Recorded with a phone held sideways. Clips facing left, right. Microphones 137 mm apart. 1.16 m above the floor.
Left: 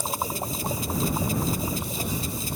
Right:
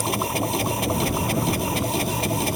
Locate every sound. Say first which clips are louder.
0.0 s a machine running: right 6 dB; 70° right (ahead or behind)